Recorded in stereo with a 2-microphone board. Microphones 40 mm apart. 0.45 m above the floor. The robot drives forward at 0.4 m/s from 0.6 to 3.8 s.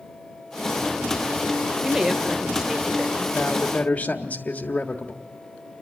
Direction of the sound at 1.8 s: 10° right (ahead or behind).